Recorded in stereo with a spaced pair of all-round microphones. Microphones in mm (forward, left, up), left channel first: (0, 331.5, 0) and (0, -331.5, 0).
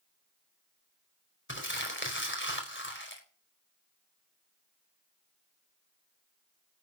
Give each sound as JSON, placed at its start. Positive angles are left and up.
{"t": 1.5, "sound": "crumpling", "side_deg": 15, "distance_m": 4.5}